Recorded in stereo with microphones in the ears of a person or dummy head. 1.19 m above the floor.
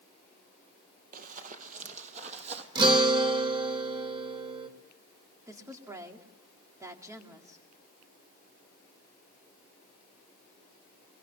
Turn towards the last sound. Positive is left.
turn(degrees=-20)  # may be behind; listen again after turning